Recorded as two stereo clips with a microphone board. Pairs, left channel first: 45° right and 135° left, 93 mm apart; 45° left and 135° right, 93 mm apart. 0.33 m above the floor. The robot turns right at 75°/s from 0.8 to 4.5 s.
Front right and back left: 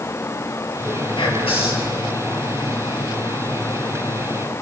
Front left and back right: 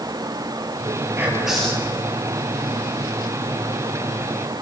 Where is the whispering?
75° right, 7.5 m; by 1.9 s 15° right, 7.5 m.